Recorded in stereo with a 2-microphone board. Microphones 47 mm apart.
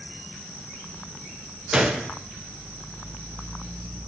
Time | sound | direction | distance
1.7 | a gunshot | 15° right (ahead or behind) | 0.5 m